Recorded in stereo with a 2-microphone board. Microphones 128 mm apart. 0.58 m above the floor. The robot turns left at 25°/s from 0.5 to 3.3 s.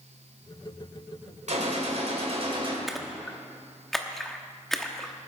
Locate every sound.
1.5 s a gunshot: 100° right, 2.5 m; by 2.8 s 135° right, 2.5 m
2.9 s a splash: centre (ahead or behind), 1.0 m; by 5.1 s 5° left (ahead or behind), 1.0 m